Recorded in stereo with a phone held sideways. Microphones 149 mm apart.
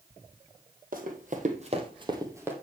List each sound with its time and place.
0.9 s running footsteps: 70° right (ahead or behind), 2.5 m; by 2.5 s 15° right (ahead or behind), 2 m